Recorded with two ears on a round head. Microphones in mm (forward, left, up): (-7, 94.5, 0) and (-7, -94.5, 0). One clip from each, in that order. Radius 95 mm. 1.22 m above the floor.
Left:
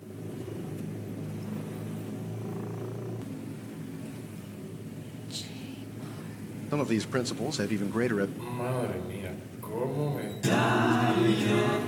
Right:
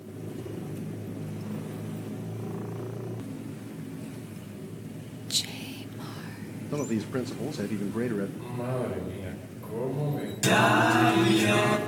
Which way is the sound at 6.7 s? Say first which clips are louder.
Left 2 dB; 35° left (ahead or behind).